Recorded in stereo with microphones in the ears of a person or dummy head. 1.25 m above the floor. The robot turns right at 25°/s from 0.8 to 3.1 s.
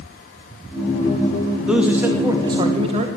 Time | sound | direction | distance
1.7 | a man speaking | straight behind | 1.1 m